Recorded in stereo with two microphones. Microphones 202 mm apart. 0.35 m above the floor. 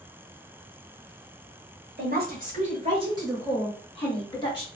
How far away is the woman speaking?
About 1.3 m.